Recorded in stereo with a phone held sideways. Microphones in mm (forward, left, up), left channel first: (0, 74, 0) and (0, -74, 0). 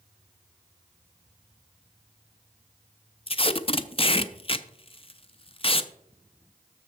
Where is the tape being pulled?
40° left (ahead or behind), 0.5 m.